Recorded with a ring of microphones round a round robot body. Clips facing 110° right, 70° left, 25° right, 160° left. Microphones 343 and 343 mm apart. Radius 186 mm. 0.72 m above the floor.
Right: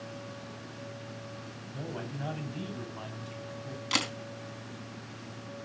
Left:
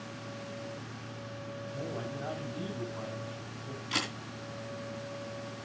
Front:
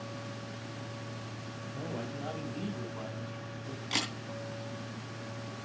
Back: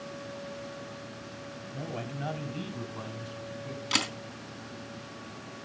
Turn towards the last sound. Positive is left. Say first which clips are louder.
# right 3 dB, back 3 dB
turn(degrees=-140)